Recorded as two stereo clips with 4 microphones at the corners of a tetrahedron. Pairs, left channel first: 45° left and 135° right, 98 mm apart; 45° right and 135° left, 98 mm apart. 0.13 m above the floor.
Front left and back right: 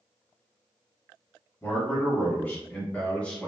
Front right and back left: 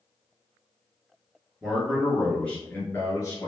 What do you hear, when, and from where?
1.6 s a man speaking: 65° left, 1.3 m; by 3.5 s 25° right, 1.5 m